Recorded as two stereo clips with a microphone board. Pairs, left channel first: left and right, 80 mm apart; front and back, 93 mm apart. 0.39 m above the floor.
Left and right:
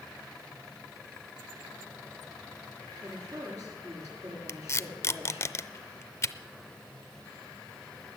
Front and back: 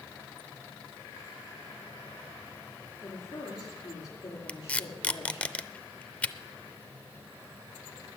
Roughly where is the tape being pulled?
Ahead left.